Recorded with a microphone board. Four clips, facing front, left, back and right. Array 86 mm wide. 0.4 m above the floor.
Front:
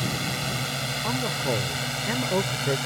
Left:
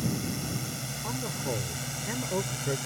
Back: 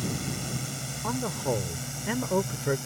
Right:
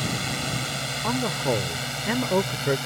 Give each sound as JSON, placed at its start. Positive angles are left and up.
{"t": 0.0, "sound": "a drone", "azimuth_deg": -50}
{"t": 1.0, "sound": "a man speaking", "azimuth_deg": -90}